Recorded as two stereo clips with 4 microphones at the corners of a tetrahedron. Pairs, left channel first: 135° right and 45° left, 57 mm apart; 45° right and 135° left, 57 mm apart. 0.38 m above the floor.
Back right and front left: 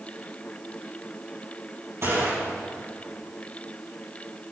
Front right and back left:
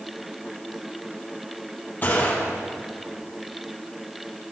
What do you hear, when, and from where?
2.0 s a gunshot: 10° left, 4 m